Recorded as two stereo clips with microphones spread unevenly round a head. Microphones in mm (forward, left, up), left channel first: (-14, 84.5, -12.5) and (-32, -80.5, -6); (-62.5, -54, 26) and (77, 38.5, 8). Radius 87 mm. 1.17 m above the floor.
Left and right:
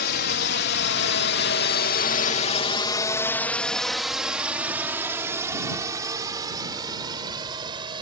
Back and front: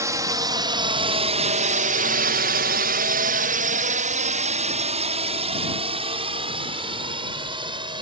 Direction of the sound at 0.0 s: 105° left.